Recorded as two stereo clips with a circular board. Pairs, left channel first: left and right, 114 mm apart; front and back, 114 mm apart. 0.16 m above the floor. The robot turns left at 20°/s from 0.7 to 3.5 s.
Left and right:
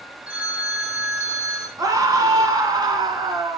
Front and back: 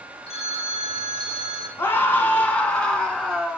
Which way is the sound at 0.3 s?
10° right.